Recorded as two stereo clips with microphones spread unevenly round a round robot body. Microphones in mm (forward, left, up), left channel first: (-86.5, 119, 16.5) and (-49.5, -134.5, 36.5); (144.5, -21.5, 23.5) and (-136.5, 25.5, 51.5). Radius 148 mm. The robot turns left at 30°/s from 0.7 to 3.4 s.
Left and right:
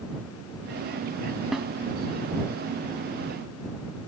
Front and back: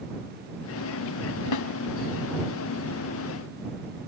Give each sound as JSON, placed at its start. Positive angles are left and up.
{"t": 1.5, "sound": "a snare drum", "azimuth_deg": 10}